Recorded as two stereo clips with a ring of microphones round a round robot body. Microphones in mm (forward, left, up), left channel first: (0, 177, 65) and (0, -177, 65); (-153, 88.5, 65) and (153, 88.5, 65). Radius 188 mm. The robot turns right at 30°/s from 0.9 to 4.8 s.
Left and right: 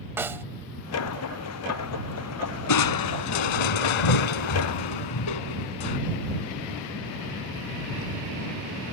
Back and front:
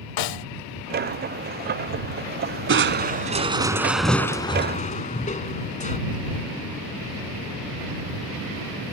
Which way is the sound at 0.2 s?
175° right.